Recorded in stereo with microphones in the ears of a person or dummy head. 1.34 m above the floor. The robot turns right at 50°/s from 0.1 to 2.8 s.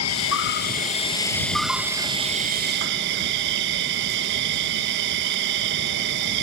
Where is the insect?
100° left; by 6.4 s 125° right.